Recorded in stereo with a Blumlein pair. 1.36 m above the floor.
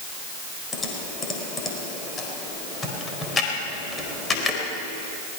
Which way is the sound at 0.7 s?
15° left.